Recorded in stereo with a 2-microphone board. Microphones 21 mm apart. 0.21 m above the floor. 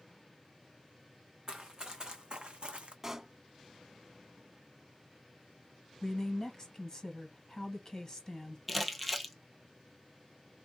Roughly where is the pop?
Centre.